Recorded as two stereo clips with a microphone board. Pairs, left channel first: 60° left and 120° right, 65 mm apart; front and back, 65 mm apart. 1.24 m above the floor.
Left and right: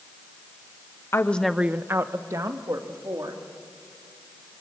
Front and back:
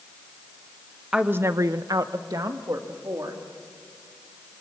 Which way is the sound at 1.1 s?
100° left.